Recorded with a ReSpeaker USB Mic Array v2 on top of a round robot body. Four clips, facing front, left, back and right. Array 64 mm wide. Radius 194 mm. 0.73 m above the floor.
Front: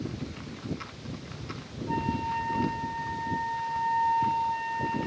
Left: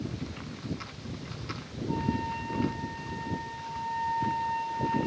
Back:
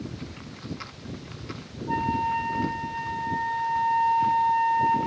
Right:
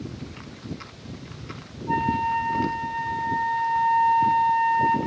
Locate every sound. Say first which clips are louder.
1.9 s a flute: right 8 dB, back 5 dB; 105° right, 2.5 m